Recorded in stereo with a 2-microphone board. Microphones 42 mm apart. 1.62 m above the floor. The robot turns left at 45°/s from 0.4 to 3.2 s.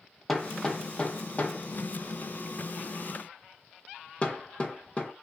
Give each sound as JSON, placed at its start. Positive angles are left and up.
{"t": 0.3, "sound": "hammering", "side_deg": 10, "distance_m": 0.9}